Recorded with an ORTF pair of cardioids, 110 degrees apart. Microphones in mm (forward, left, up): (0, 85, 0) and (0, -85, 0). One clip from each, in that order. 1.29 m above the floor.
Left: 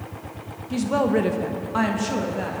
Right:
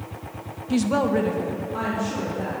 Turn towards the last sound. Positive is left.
turn(degrees=75)